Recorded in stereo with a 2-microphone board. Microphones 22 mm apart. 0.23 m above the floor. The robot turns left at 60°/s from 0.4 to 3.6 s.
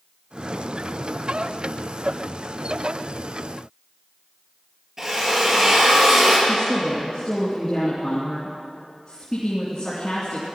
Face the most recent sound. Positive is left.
turn(degrees=40)  # may be behind; listen again after turning